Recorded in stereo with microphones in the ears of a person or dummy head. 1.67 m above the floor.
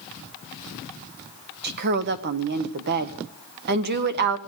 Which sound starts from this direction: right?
A woman speaking, at 1.6 s.